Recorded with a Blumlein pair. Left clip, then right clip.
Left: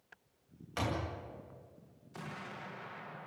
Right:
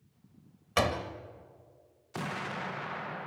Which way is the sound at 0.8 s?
60° right.